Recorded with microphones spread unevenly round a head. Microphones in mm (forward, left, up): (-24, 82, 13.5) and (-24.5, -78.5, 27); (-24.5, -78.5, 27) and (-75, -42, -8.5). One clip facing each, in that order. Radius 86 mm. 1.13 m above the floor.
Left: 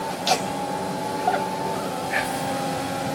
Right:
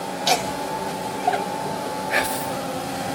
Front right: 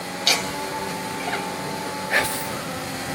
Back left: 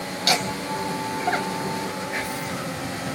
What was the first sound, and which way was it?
Laughter, 170° right.